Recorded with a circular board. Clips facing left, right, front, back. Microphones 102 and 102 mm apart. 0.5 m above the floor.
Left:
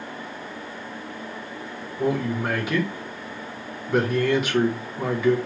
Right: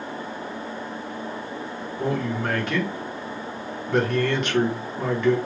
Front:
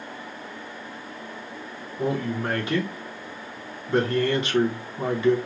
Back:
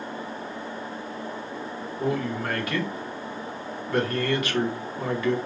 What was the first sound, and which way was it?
A man speaking, 15° left.